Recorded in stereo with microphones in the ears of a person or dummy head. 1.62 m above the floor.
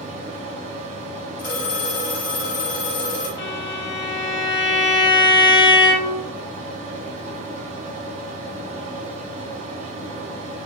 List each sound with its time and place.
0.0 s a fan: 45° right (ahead or behind), 0.8 m
1.4 s a phone ringing: 50° left (ahead or behind), 1.2 m
3.4 s a violin: 65° left (ahead or behind), 0.6 m